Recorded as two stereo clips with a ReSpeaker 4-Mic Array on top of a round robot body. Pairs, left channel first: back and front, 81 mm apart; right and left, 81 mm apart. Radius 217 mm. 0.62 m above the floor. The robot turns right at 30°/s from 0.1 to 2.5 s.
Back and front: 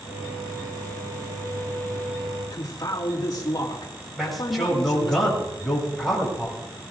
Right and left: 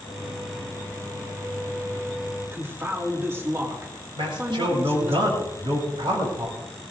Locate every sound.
2.5 s a man speaking: 150° left, 2.5 m
4.2 s a man speaking: 90° left, 7 m